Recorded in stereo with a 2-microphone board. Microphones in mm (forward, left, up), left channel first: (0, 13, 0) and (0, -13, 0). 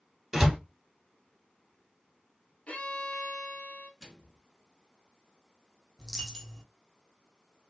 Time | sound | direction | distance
0.3 | a door slam | 20° right (ahead or behind) | 1.3 m
2.7 | a violin | 55° left (ahead or behind) | 1.0 m
4.0 | a microwave | 10° left (ahead or behind) | 1.4 m
6.0 | a dropped coin | centre (ahead or behind) | 1.0 m